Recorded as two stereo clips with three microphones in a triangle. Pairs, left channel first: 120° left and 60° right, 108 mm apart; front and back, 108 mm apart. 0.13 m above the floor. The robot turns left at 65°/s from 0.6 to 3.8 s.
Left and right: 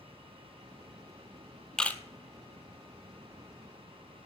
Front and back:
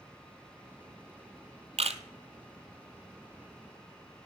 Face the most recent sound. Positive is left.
turn(degrees=75)